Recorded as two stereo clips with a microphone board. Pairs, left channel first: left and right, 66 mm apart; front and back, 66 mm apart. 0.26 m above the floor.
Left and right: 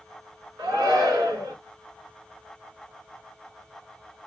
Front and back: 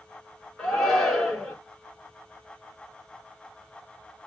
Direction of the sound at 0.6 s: 85° right.